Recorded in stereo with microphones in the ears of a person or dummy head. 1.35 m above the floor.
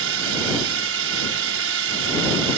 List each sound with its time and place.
0.0 s a drone: 65° right (ahead or behind)